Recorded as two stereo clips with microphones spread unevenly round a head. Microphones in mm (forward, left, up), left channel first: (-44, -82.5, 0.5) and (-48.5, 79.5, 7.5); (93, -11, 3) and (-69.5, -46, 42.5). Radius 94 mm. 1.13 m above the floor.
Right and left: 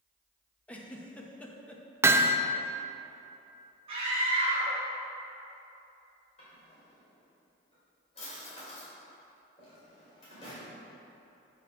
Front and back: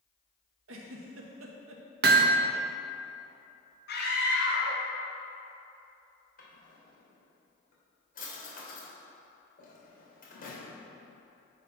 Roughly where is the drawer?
Ahead right.